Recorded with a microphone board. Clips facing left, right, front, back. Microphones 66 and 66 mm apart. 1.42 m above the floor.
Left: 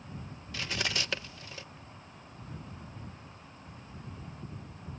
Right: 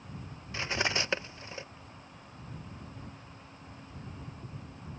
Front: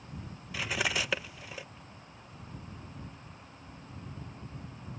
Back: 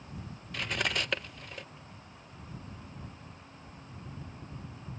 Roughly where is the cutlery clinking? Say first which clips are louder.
Right 3 dB, front 1 dB; right.